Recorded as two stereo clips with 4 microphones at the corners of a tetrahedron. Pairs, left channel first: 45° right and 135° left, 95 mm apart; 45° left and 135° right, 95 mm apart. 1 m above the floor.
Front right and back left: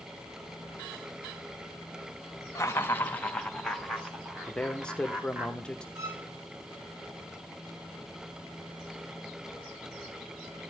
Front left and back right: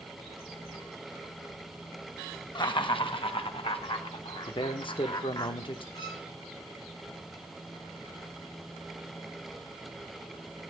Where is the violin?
80° left, 1.7 m.